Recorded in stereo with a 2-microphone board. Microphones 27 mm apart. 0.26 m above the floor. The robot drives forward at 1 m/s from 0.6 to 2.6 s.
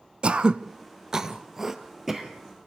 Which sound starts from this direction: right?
Throat clearing, at 0.2 s.